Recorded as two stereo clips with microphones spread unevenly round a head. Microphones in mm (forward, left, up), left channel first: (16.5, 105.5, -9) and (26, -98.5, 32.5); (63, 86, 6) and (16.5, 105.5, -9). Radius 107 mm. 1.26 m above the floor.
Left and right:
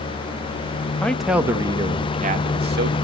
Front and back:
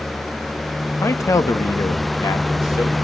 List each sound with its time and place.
1.0 s a man speaking: 10° left, 1.8 m; by 3.0 s 45° right, 2 m